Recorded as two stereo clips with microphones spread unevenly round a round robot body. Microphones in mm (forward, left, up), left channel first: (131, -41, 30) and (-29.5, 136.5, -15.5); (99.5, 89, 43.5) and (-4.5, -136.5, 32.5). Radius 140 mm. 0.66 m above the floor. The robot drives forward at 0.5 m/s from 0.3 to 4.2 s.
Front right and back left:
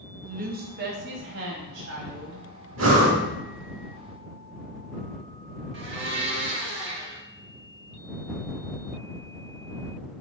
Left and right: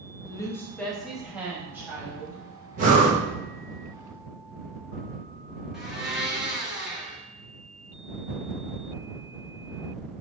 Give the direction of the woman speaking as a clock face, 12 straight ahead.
7 o'clock.